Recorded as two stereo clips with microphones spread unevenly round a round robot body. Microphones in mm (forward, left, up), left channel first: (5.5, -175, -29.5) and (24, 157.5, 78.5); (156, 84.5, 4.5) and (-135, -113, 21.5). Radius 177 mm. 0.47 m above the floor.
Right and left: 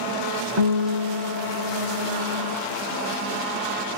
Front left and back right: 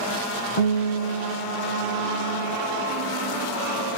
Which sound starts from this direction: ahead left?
A guitar, at 0.6 s.